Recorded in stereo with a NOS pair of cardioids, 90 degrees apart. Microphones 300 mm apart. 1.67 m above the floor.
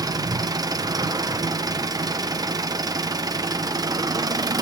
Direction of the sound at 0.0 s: 15° right.